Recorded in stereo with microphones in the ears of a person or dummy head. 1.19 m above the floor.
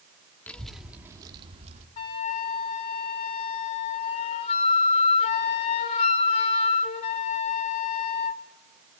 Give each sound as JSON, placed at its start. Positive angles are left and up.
{"t": 0.5, "sound": "a child speaking", "side_deg": 10, "distance_m": 1.8}
{"t": 2.0, "sound": "a flute", "side_deg": 40, "distance_m": 1.0}